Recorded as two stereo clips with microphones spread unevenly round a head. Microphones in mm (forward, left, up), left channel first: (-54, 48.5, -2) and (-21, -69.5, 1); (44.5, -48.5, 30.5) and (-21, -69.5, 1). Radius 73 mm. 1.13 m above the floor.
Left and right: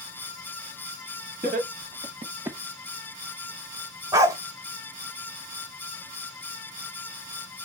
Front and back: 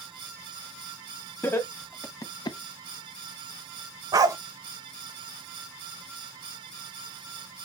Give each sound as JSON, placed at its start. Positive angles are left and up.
{"t": 1.4, "sound": "laughter", "azimuth_deg": -40, "distance_m": 1.9}
{"t": 4.1, "sound": "a dog barking", "azimuth_deg": -125, "distance_m": 1.1}